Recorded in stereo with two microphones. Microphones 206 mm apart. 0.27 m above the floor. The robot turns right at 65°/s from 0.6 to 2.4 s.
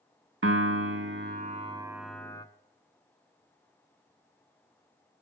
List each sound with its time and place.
0.4 s a piano: 100° right, 0.6 m; by 2.5 s 20° left, 0.6 m